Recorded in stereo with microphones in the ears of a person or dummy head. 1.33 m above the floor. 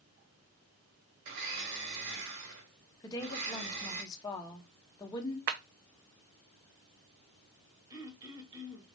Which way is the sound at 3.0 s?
20° left (ahead or behind).